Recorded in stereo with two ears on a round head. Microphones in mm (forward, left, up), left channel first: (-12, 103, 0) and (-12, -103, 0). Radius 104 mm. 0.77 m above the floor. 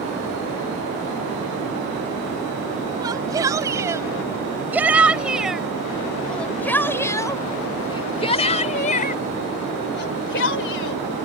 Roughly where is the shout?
Centre.